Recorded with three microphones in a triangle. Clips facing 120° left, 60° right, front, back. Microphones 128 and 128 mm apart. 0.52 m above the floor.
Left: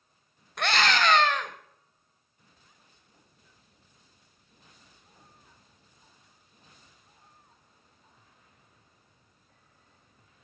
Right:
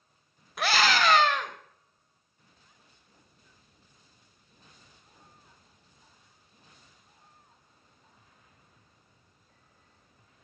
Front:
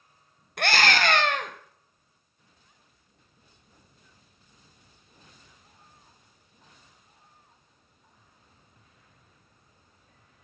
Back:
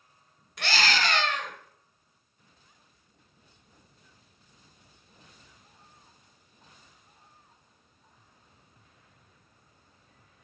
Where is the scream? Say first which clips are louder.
Even, front 4 dB; 25° left, 2 m.